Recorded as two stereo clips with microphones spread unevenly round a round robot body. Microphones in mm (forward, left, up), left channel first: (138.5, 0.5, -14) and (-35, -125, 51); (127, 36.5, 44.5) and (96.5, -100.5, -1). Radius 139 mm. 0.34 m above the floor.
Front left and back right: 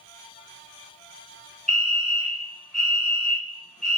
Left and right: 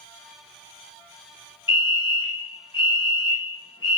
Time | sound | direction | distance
1.7 | a fire alarm | 35° left | 1.8 m